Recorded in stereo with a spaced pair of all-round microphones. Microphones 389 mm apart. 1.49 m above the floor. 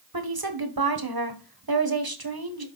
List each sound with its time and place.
0.1 s a woman speaking: 65° right (ahead or behind), 1.3 m